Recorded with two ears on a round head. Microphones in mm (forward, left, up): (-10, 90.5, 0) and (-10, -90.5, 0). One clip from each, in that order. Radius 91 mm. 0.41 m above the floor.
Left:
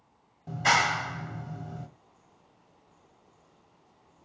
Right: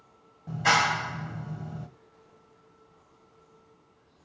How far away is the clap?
About 1.9 m.